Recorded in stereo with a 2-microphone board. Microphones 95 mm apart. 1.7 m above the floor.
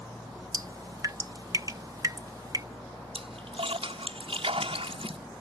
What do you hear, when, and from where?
0.5 s dripping: 40° right (ahead or behind)
3.1 s a splash: 85° right